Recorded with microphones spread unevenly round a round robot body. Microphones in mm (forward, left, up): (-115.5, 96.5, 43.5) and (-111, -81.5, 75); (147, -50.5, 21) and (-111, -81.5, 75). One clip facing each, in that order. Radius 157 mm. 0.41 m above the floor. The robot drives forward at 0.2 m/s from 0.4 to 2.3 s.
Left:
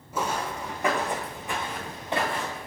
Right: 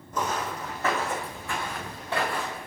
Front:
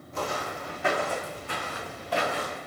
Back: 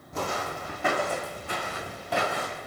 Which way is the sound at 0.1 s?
175° left.